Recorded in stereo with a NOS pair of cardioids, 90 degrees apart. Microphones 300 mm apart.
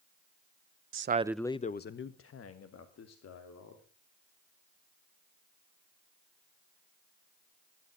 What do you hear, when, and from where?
0.9 s a man speaking: 50° right, 0.7 m; by 3.8 s 60° left, 3.5 m